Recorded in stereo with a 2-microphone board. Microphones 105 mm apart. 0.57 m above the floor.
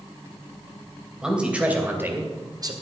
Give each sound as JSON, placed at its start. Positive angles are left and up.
{"t": 1.2, "sound": "a man speaking", "side_deg": -5, "distance_m": 2.5}